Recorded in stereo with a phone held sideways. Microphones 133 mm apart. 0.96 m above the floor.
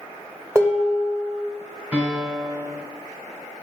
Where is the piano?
15° right (ahead or behind), 3 m.